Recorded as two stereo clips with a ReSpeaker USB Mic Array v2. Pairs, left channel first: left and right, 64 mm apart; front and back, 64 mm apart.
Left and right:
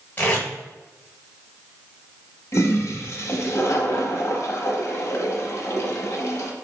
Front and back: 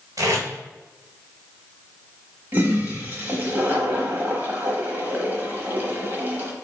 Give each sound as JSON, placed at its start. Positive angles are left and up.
{"t": 0.2, "sound": "tape being pulled", "azimuth_deg": 150, "distance_m": 1.6}
{"t": 2.5, "sound": "a toilet flushing", "azimuth_deg": 125, "distance_m": 0.9}